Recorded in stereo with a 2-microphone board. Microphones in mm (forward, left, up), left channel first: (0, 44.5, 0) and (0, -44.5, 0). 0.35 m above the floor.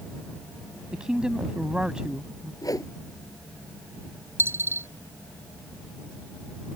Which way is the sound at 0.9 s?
10° right (ahead or behind).